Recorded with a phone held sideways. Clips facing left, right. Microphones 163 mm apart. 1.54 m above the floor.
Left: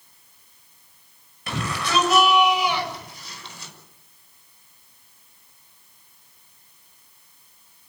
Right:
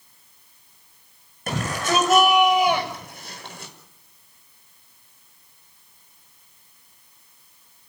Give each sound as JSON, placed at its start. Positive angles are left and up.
{"t": 1.5, "sound": "a shout", "side_deg": -50, "distance_m": 6.5}